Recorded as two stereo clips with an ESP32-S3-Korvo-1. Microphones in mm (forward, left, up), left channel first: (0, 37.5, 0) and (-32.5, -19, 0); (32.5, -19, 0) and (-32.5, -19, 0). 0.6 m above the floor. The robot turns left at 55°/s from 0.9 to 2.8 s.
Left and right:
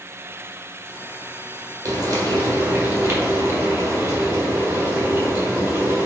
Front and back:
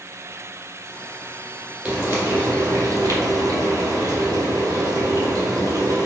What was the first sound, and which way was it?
Frying, 105° right.